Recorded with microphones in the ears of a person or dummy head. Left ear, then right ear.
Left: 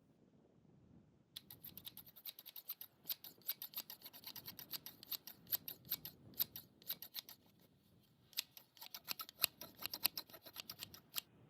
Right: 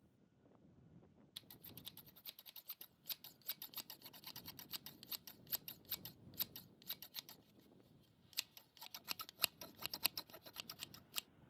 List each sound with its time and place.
1.4 s scissors: 5° left (ahead or behind)